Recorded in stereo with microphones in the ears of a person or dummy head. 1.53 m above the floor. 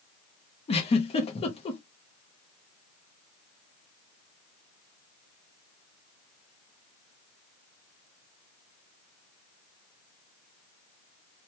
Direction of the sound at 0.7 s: 25° left (ahead or behind).